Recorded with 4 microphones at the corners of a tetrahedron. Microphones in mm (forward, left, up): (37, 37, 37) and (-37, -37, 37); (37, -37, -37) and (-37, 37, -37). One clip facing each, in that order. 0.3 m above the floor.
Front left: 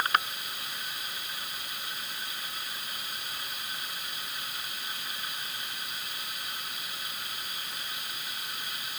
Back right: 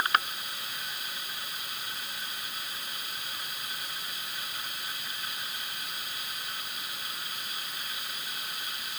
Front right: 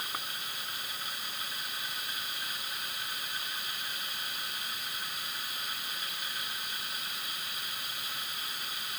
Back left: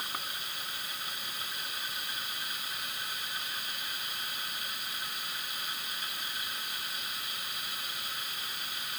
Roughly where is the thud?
No thud in this recording.